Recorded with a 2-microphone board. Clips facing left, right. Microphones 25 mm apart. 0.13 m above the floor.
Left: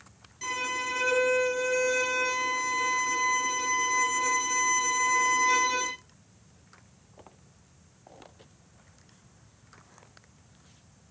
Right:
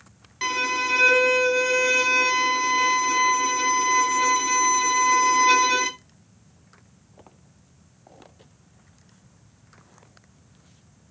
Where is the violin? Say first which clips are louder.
Right 7 dB; 50° right (ahead or behind), 1.8 m.